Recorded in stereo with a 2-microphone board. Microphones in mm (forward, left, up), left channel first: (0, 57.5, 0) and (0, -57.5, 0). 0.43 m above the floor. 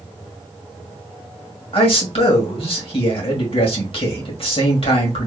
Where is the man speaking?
55° left (ahead or behind), 2.0 m.